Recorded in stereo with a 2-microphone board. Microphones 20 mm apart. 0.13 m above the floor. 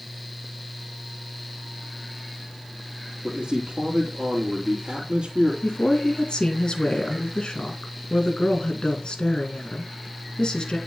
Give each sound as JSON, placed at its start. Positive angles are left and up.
{"t": 3.2, "sound": "a man speaking", "side_deg": -50, "distance_m": 3.0}
{"t": 5.6, "sound": "a woman speaking", "side_deg": 45, "distance_m": 2.0}